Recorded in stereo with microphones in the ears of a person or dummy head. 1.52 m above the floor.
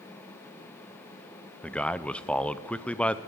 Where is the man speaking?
5° left (ahead or behind), 0.6 m.